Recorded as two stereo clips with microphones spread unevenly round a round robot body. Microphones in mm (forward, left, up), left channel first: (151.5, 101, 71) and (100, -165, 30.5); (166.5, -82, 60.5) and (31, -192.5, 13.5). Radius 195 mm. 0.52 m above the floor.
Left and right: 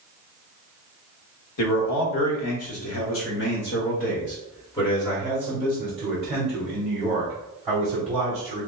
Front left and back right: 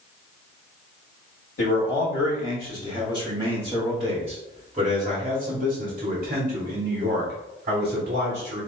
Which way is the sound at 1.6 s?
80° left.